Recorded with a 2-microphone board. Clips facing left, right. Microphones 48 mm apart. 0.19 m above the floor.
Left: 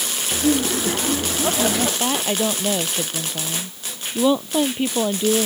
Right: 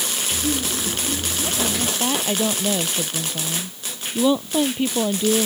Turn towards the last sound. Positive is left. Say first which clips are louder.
# left 1 dB
turn(degrees=10)  # may be behind; listen again after turning